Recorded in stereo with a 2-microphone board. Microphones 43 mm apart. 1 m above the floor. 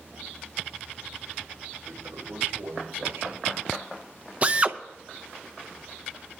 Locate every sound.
1.9 s a toilet flushing: 85° right, 2.5 m
4.4 s a drill: 30° right (ahead or behind), 0.6 m